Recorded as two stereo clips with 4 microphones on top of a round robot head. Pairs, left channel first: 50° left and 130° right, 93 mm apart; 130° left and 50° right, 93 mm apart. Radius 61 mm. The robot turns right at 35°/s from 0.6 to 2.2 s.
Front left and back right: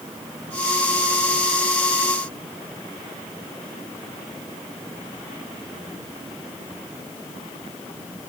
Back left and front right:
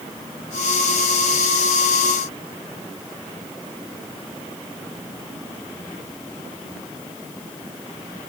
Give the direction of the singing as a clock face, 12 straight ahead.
I don't hear singing.